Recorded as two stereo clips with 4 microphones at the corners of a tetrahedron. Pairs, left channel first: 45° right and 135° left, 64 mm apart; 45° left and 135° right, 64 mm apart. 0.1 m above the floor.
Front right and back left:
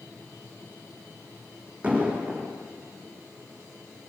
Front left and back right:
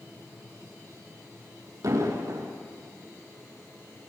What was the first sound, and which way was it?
An explosion, 160° right.